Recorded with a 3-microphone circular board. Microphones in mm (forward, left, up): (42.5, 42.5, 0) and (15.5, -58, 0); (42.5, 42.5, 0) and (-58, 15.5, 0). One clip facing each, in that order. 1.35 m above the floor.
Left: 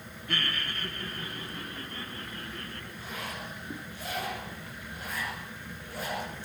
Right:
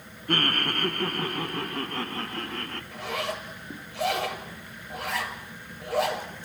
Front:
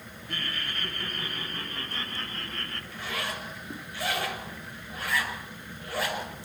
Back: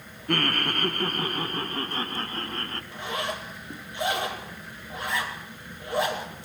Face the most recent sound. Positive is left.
turn(degrees=-100)